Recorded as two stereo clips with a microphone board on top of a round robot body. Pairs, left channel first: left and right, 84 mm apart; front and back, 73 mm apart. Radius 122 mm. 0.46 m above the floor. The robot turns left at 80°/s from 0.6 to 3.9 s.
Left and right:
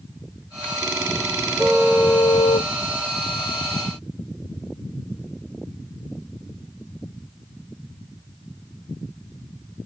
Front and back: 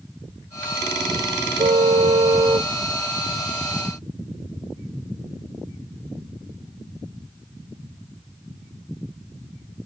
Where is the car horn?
160° right; by 2.7 s 110° left.